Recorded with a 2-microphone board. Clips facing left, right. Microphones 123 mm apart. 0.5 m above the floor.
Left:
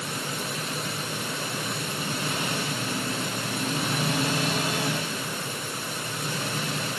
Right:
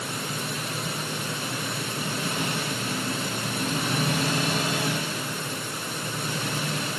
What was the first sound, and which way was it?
Only background noise.